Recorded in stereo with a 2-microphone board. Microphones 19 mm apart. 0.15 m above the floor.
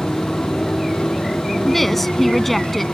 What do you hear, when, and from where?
0.0 s a motorcycle: 80° left
1.6 s a woman speaking: 10° left (ahead or behind)